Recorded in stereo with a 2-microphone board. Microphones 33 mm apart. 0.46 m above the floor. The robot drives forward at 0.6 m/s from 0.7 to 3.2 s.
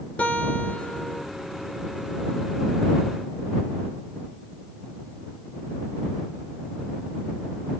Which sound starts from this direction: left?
A guitar, at 0.2 s.